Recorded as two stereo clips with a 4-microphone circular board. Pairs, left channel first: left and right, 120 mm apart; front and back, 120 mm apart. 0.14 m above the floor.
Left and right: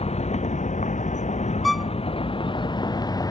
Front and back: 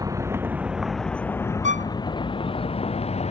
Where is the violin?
Straight behind.